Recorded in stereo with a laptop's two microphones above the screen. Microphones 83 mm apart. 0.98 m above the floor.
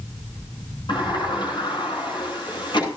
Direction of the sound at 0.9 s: 75° left (ahead or behind).